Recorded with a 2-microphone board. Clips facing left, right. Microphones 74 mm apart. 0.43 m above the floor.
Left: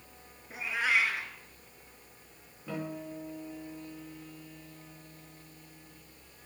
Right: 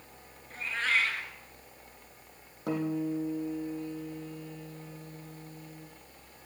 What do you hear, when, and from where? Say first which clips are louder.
0.5 s a cat meowing: left 1 dB; 10° left (ahead or behind), 1.9 m
2.7 s a guitar: right 8 dB; 75° right (ahead or behind), 5 m